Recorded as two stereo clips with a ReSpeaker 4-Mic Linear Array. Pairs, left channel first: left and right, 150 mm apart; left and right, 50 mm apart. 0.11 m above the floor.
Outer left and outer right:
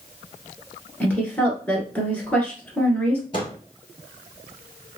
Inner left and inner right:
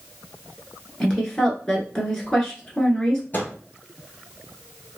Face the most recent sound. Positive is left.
turn(degrees=35)  # may be behind; listen again after turning